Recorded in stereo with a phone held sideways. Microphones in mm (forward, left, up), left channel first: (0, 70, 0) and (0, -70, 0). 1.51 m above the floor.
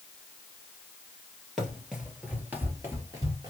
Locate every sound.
1.6 s running footsteps: centre (ahead or behind), 2 m; by 3.5 s 30° right (ahead or behind), 1.8 m